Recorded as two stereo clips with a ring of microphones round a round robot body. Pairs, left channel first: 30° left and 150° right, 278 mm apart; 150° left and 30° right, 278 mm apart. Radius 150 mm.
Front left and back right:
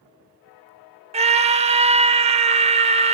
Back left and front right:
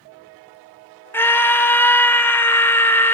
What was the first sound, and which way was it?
A scream, 140° right.